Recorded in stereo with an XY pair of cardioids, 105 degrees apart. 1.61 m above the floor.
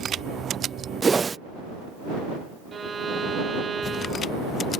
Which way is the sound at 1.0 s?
25° right.